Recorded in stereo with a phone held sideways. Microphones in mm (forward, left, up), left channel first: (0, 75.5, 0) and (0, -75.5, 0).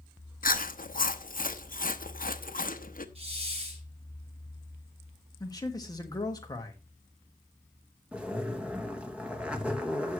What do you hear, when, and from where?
0.4 s chewing: 65° left (ahead or behind), 0.9 m
3.1 s a hiss: 40° right (ahead or behind), 4.5 m
5.4 s a man speaking: 25° left (ahead or behind), 2.0 m
8.1 s a zipper: 10° right (ahead or behind), 1.4 m